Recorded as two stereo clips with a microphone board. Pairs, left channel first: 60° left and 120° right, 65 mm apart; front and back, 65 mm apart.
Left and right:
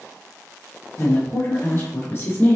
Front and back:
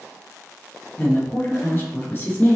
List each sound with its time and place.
1.0 s a woman speaking: 35° left, 1.8 m